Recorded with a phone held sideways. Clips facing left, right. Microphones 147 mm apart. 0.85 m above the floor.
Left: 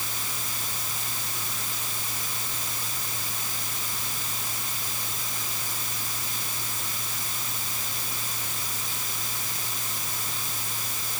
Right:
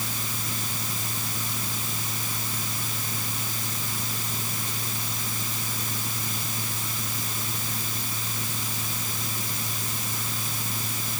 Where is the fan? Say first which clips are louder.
Right 3 dB; 85° right.